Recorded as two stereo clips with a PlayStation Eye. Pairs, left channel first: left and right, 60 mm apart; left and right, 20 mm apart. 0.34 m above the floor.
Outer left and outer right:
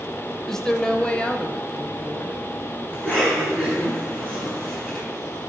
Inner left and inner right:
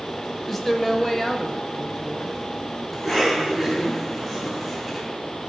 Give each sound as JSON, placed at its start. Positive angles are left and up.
{"t": 0.5, "sound": "a woman speaking", "side_deg": 5, "distance_m": 0.9}
{"t": 2.9, "sound": "a cough", "side_deg": 15, "distance_m": 4.0}